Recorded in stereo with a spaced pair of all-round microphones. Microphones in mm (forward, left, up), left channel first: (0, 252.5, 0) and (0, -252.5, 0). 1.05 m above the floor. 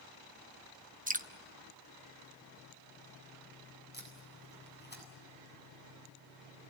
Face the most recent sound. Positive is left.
turn(degrees=20)  # may be behind; listen again after turning